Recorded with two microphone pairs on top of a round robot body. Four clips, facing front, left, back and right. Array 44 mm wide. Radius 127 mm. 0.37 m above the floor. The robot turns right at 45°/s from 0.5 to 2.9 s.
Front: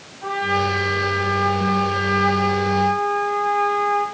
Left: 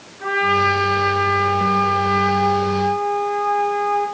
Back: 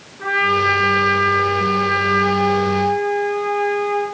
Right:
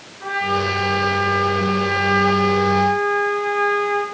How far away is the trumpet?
About 4.5 m.